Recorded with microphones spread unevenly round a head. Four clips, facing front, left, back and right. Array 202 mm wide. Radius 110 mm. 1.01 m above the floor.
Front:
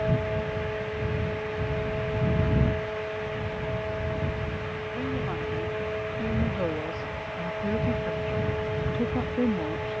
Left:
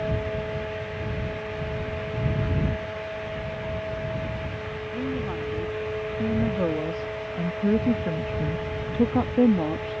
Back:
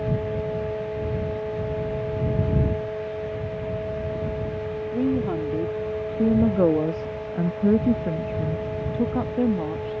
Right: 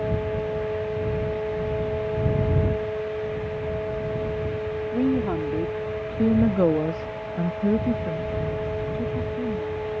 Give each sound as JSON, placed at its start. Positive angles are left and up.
{"t": 4.9, "sound": "a woman speaking", "azimuth_deg": -130}